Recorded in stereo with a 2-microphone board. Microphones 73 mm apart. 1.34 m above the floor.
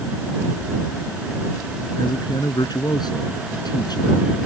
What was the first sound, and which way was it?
A man speaking, 70° left (ahead or behind).